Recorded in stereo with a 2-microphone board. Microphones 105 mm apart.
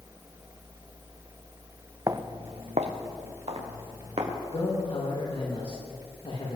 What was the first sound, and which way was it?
Footsteps, 35° right (ahead or behind).